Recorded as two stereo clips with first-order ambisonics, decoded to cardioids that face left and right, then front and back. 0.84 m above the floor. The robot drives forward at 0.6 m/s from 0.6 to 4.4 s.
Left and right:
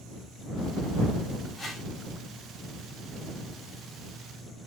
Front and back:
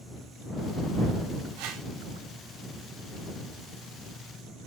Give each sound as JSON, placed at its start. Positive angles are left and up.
{"t": 1.6, "sound": "a whoosh", "azimuth_deg": 170, "distance_m": 1.7}